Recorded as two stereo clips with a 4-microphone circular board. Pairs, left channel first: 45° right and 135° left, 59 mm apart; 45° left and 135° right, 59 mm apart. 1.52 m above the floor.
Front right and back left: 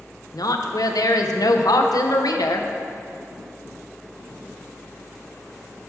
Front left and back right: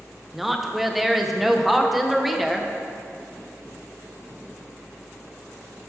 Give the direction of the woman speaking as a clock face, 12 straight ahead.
2 o'clock.